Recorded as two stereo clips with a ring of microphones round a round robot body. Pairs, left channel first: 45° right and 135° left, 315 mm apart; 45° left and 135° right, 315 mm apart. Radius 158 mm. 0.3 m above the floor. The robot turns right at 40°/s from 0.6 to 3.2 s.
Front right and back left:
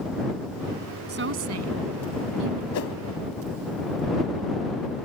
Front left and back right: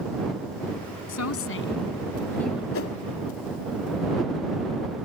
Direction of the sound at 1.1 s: 75° left.